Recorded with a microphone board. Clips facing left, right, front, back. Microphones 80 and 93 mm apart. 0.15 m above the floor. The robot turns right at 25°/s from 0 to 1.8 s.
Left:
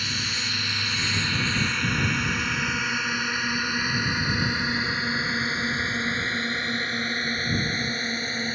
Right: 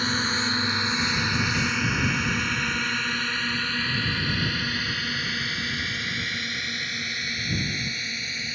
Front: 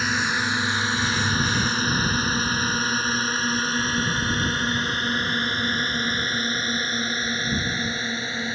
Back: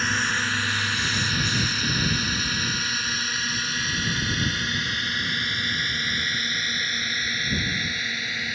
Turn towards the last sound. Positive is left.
turn(degrees=55)